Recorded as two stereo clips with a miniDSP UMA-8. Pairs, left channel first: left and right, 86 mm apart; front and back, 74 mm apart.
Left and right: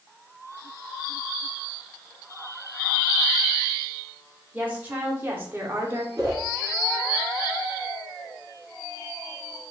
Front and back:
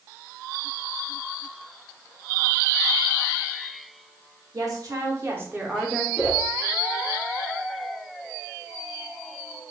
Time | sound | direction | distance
4.5 | a woman speaking | 155° right | 1.3 m
6.2 | a whoosh | 100° right | 1.1 m